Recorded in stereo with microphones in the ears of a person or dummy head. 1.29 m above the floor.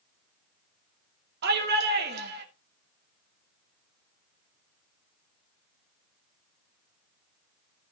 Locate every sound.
1.4 s a shout: 55° right (ahead or behind), 2.5 m